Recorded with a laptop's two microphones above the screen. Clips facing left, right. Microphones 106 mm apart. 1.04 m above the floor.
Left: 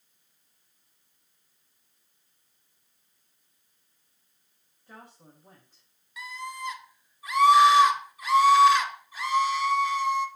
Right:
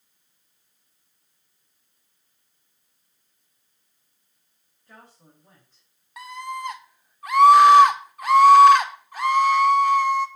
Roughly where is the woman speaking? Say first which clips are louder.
Left 1 dB; centre.